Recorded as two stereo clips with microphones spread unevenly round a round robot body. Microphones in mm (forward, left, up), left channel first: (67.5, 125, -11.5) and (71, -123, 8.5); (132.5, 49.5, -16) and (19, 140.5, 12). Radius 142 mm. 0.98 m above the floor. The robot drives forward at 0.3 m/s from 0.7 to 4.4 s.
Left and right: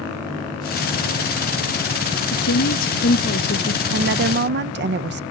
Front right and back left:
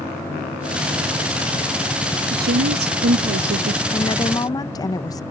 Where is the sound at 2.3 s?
125° left; by 3.8 s 150° left.